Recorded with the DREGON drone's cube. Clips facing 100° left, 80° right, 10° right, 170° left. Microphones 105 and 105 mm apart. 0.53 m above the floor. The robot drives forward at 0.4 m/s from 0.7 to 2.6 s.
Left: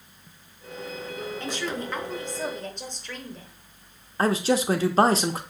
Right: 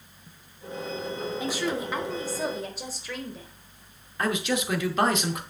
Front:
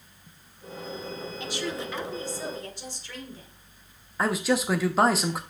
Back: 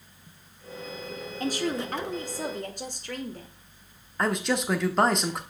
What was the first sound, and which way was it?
A woman speaking, 155° right.